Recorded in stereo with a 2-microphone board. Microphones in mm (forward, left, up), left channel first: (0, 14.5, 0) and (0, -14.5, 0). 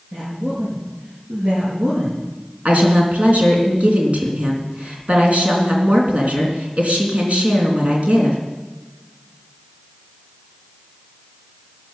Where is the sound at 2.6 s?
50° right (ahead or behind), 3.5 m.